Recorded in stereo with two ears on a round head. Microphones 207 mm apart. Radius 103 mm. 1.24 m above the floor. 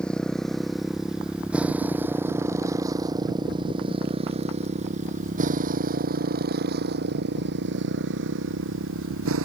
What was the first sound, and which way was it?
A motorcycle, 5° left (ahead or behind).